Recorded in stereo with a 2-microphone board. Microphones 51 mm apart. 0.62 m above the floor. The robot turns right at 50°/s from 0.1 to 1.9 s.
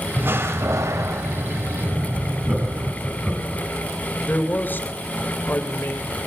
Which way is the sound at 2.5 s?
20° right (ahead or behind).